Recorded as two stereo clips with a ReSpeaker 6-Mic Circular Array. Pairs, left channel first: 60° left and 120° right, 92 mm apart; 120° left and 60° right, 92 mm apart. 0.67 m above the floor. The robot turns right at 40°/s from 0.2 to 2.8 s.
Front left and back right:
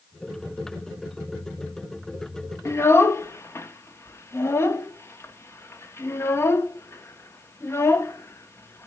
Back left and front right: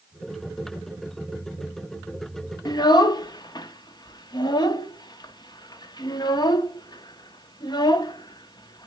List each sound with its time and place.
2.6 s a child speaking: 105° left, 0.7 m; by 8.9 s 110° left, 0.7 m